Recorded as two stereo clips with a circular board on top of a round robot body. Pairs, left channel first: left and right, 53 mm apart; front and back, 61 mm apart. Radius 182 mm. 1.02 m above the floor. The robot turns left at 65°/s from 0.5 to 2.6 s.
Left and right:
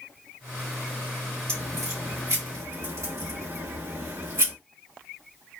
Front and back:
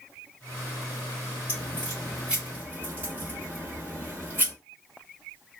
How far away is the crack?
About 3.5 m.